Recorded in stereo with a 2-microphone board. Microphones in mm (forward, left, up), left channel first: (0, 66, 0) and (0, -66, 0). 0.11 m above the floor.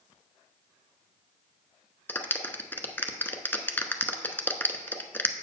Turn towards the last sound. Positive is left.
turn(degrees=15)  # may be behind; listen again after turning